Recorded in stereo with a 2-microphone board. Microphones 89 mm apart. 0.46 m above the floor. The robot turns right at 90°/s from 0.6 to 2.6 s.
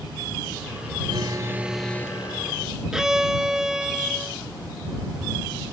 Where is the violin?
5° right (ahead or behind).